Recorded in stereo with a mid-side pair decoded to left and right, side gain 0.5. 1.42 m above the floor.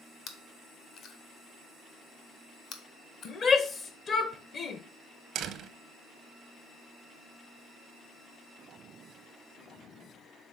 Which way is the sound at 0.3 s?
65° left.